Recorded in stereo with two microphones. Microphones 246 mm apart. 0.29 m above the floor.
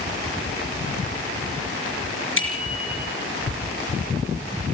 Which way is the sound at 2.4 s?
55° left (ahead or behind).